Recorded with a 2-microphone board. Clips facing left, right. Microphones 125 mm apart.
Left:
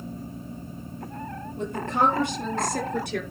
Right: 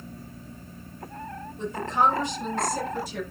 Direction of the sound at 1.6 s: 55° left (ahead or behind).